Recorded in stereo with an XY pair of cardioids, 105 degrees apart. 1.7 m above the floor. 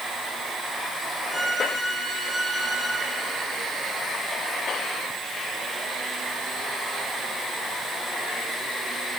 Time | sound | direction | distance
1.3 | a violin | 20° left | 9.5 m